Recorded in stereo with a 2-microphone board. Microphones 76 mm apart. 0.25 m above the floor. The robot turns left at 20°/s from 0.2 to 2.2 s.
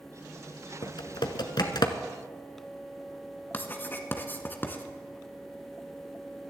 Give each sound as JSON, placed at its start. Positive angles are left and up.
{"t": 0.8, "sound": "typing on a keyboard", "side_deg": 80, "distance_m": 0.9}
{"t": 3.5, "sound": "writing", "side_deg": 25, "distance_m": 1.1}